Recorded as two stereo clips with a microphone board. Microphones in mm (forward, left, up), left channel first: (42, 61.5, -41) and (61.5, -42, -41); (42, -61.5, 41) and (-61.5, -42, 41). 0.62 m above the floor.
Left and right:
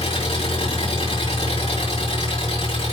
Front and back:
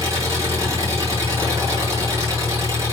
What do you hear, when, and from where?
0.0 s an engine running: 110° left, 5 m